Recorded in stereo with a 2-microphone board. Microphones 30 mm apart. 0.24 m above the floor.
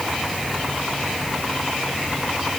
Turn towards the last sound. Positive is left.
No sound to turn to.